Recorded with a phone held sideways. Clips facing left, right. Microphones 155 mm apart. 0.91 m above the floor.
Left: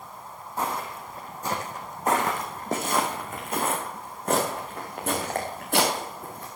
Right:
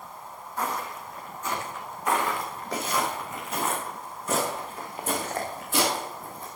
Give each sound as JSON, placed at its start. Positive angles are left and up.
{"t": 0.6, "sound": "footsteps", "side_deg": 25, "distance_m": 2.5}